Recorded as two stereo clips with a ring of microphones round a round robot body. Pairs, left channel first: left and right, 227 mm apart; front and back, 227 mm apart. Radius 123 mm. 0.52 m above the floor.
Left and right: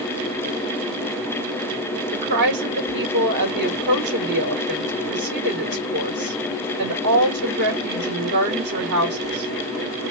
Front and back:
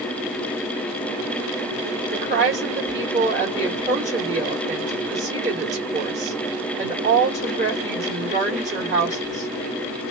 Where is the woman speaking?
120° right, 1.9 m.